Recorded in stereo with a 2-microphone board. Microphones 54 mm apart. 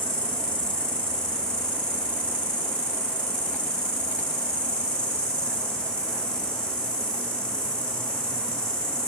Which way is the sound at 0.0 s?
20° left (ahead or behind).